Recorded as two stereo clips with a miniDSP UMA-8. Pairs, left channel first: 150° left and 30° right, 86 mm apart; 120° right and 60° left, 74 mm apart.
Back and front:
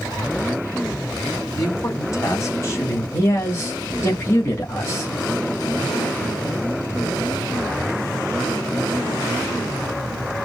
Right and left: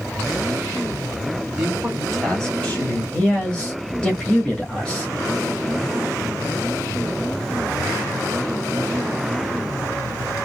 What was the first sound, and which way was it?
A man speaking, 140° left.